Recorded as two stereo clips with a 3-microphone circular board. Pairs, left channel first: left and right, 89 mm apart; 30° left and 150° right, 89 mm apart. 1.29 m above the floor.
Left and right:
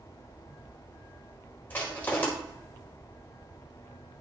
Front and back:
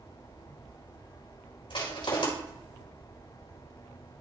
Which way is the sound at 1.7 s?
20° left.